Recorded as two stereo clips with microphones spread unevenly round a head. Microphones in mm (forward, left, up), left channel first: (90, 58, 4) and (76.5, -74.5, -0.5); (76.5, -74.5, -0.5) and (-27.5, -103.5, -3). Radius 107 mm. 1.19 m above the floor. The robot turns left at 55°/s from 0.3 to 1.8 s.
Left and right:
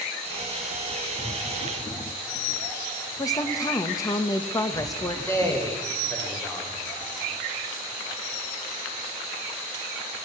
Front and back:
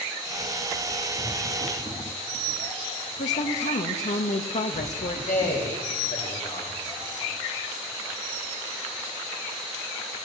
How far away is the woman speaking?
About 1.5 m.